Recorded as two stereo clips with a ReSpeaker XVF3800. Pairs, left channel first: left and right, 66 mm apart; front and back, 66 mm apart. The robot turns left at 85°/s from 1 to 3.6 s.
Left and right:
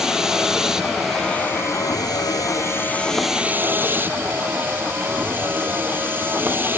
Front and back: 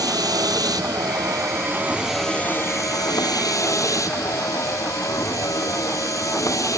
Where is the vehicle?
170° right; by 6.8 s 30° right.